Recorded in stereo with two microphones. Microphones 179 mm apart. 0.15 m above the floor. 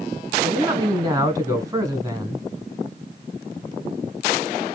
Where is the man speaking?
20° right (ahead or behind), 1.1 m.